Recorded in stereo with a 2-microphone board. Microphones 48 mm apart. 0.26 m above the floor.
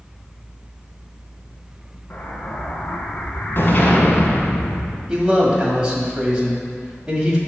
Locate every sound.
2.1 s an explosion: 45° left (ahead or behind), 1.3 m
5.1 s a man speaking: 20° right (ahead or behind), 1.5 m